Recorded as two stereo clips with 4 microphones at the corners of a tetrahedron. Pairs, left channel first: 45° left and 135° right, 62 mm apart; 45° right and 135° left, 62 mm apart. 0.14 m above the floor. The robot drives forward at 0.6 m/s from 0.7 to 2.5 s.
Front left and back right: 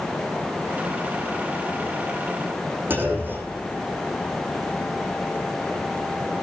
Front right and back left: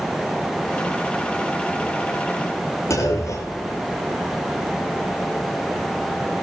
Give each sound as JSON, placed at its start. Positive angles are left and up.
{"t": 2.9, "sound": "a clunk", "azimuth_deg": -75, "distance_m": 6.5}